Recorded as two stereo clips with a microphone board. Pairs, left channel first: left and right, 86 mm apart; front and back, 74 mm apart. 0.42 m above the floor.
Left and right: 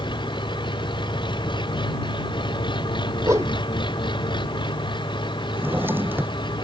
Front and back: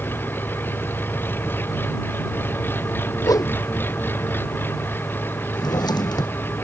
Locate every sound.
0.0 s an engine running: 60° left
3.2 s a whoosh: 35° right
5.5 s a drawer: 25° right